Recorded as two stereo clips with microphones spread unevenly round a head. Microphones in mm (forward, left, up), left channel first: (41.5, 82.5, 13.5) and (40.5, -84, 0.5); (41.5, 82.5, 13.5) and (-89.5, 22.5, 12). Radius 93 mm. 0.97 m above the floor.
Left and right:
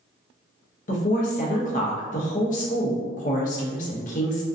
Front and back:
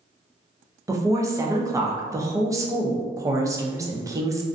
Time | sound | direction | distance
0.9 | a woman speaking | 140° left | 0.6 m